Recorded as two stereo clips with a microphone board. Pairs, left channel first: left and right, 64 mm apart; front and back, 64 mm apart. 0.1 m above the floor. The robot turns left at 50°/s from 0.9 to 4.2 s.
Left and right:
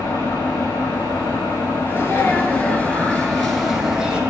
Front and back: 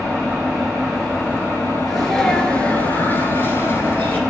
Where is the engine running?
90° left, 2 m; by 4.3 s 75° right, 2 m.